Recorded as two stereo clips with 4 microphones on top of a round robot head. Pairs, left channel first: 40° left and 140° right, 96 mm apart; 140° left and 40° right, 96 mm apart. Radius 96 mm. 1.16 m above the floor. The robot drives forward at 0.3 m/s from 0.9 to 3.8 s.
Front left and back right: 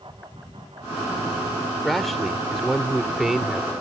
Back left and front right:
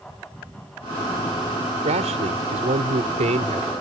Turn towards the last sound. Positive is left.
turn(degrees=-55)